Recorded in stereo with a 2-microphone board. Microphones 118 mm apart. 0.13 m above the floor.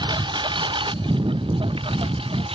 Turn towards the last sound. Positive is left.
turn(degrees=-50)  # may be behind; listen again after turning